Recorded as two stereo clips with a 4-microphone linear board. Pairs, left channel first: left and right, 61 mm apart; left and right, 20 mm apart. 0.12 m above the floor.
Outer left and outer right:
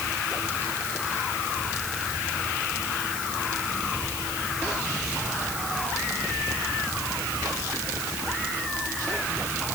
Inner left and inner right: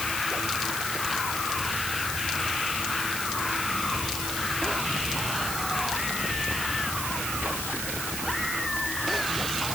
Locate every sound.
Only background noise.